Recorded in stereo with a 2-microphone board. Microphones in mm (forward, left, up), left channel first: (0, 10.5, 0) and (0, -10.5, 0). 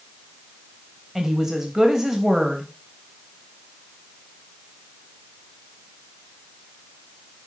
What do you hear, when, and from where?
1.1 s a woman speaking: 20° right (ahead or behind), 2.5 m